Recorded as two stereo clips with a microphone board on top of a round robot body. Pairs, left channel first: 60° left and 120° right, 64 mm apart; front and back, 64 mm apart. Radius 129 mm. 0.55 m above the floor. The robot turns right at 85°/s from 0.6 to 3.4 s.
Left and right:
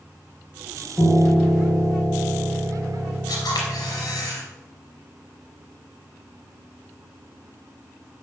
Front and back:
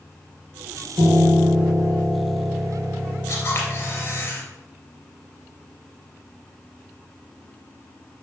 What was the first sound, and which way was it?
A piano, 165° left.